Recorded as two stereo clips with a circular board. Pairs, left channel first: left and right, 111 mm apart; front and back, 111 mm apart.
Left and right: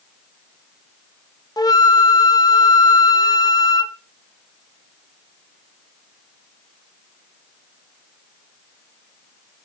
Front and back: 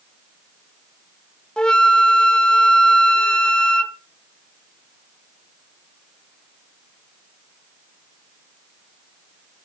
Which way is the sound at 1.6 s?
75° left.